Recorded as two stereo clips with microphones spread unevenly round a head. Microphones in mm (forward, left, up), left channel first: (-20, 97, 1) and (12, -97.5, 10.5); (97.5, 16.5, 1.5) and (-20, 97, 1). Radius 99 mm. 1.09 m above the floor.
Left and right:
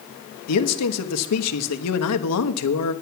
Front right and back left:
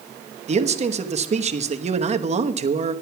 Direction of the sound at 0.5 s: 100° left.